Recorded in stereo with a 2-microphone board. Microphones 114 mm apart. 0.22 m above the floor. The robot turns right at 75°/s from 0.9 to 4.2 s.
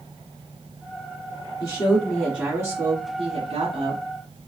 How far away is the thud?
No thud in this recording.